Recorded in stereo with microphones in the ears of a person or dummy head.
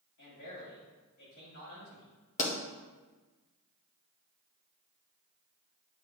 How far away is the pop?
About 1.3 m.